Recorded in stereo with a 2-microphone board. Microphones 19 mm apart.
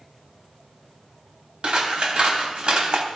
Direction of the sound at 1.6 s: 55° right (ahead or behind).